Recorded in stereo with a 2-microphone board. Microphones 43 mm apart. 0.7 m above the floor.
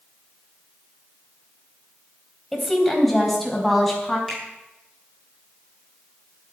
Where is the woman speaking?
5° left (ahead or behind), 3.5 m.